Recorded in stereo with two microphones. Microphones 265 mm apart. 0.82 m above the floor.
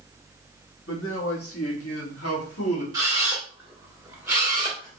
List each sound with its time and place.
0.9 s a man speaking: 55° left (ahead or behind), 1.2 m; by 2.8 s 70° left (ahead or behind), 1.9 m
2.9 s a camera shutter: 15° right (ahead or behind), 1.9 m